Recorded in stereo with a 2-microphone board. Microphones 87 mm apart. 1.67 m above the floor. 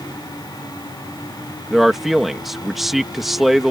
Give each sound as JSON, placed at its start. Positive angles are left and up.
{"t": 1.7, "sound": "a man speaking", "side_deg": 0}